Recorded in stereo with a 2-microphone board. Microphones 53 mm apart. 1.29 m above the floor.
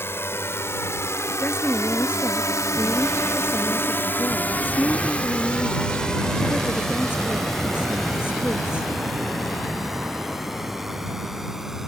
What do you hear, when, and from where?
0.0 s a drone: 50° left (ahead or behind); by 11.9 s 5° right (ahead or behind)
1.4 s a woman speaking: 45° left (ahead or behind)